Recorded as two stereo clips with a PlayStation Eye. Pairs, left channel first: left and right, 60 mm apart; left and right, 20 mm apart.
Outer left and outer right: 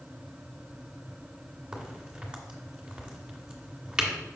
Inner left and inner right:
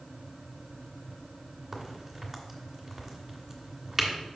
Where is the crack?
15° right (ahead or behind), 1.6 m.